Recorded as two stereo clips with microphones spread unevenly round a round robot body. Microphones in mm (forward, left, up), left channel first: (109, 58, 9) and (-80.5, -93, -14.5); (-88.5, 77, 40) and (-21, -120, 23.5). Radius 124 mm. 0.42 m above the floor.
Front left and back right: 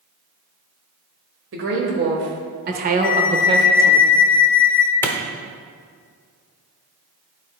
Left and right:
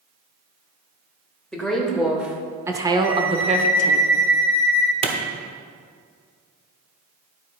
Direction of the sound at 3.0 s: 15° right.